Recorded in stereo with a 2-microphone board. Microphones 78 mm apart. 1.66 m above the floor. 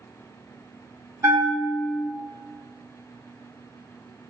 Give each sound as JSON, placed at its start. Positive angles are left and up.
{"t": 1.2, "sound": "a bell", "side_deg": -30, "distance_m": 0.9}